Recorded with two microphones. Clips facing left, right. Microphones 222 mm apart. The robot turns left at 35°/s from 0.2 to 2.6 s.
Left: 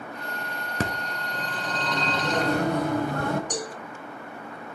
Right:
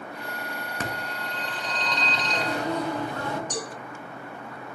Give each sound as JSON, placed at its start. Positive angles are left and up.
{"t": 0.8, "sound": "a phone ringing", "azimuth_deg": 135, "distance_m": 1.0}
{"t": 3.5, "sound": "a cowbell", "side_deg": 15, "distance_m": 1.7}